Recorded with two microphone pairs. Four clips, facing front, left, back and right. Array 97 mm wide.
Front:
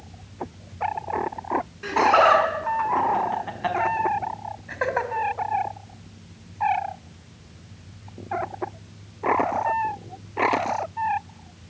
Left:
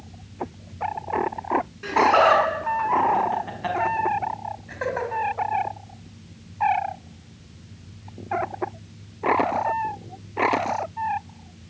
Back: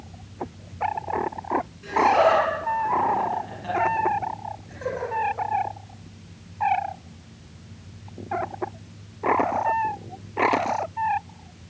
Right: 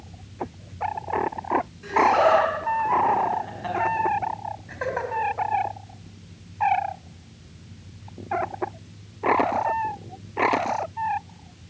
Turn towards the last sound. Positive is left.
turn(degrees=-5)